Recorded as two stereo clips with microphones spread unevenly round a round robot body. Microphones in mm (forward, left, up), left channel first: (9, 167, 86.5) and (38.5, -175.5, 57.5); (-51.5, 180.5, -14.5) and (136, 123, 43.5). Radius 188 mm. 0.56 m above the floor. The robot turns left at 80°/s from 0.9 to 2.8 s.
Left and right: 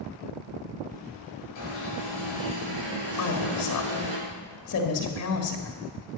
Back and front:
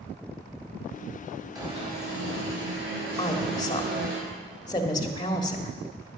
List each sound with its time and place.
1.6 s an alarm: 60° left, 5.5 m; by 4.2 s 40° right, 5.5 m
3.2 s a woman speaking: 125° left, 1.5 m